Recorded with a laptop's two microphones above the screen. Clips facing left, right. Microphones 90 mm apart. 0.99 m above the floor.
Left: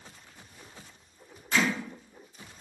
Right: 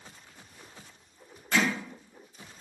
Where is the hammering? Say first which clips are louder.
Even; 60° right (ahead or behind), 1.5 m.